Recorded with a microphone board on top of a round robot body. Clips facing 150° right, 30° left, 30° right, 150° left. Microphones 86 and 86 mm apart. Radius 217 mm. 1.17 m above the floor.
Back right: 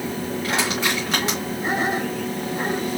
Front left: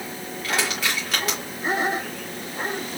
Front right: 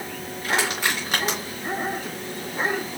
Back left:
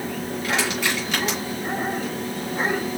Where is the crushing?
85° right, 2.5 m.